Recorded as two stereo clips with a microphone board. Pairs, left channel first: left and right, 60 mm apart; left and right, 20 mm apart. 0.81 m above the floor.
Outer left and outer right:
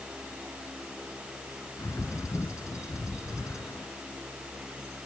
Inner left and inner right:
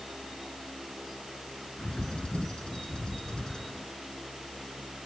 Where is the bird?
60° left (ahead or behind).